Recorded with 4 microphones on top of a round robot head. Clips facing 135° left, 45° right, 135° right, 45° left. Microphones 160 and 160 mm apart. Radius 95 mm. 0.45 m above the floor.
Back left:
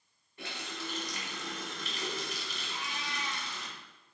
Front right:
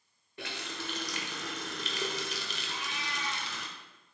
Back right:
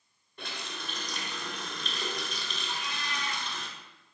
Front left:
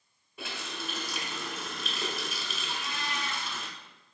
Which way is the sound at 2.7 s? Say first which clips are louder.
Back left 1 dB, front left 1 dB; 85° right.